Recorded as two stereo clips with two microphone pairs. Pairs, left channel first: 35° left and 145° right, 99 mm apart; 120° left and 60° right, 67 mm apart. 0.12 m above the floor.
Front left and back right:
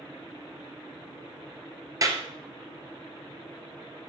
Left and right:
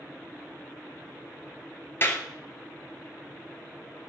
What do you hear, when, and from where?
2.0 s a clap: 170° left, 2 m